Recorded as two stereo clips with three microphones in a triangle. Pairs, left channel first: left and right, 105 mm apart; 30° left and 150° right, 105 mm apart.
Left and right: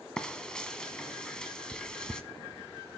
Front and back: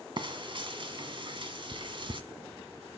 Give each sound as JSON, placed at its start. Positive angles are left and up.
{"t": 0.2, "sound": "frying", "azimuth_deg": 175, "distance_m": 1.4}